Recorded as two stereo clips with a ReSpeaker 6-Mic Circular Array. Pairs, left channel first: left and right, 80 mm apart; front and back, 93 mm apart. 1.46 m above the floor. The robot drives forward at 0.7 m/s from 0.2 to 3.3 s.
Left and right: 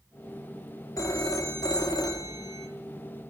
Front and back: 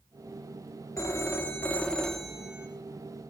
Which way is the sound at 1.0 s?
50° left.